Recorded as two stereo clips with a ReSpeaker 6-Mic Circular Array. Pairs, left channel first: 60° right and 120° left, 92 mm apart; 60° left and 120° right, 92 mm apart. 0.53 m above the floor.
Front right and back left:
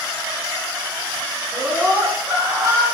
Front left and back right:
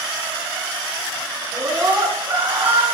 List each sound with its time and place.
1.5 s a scream: straight behind, 6 m; by 2.9 s 175° left, 5.5 m